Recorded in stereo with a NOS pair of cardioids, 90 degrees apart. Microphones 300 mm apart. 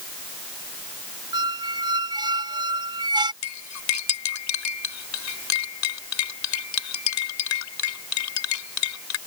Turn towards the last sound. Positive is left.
turn(degrees=65)